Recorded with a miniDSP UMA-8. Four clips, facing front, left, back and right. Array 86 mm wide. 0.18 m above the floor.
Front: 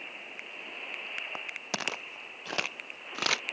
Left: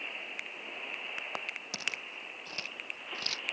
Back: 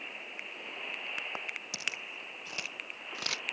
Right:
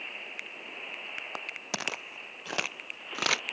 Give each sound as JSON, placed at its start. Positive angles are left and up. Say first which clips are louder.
{"t": 1.7, "sound": "footsteps", "louder": "right 9 dB, front 7 dB", "azimuth_deg": -40}